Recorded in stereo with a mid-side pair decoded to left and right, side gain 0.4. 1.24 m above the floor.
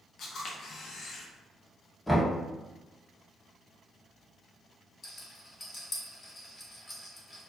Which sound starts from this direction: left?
A camera shutter, at 0.2 s.